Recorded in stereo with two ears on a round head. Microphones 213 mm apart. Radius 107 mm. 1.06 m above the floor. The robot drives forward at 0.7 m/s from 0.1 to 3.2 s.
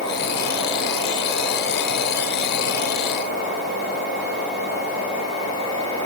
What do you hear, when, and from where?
Only background noise.